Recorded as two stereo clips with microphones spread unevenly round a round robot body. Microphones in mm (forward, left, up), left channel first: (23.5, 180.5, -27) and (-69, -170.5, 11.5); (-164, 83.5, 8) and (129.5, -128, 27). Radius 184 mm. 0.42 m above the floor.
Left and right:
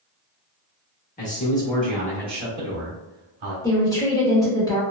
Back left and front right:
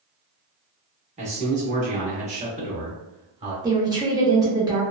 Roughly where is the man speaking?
Ahead left.